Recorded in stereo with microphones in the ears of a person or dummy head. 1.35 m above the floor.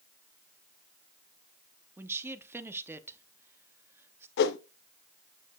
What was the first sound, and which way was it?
A woman speaking, 10° right (ahead or behind).